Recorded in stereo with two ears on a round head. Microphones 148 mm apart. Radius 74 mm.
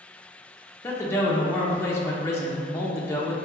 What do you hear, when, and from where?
0.8 s a man speaking: 15° left (ahead or behind), 0.6 m